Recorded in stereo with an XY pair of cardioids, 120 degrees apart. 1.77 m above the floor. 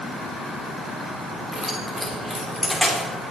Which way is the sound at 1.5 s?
Straight ahead.